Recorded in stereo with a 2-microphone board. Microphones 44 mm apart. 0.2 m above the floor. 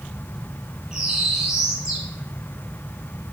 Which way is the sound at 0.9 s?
10° right (ahead or behind).